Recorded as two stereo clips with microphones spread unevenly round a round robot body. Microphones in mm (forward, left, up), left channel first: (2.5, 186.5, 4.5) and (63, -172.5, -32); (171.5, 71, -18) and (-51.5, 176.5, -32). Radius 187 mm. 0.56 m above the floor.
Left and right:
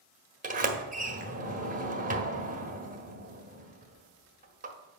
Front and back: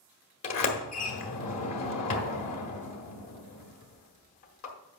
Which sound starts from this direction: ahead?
A sliding door, at 0.4 s.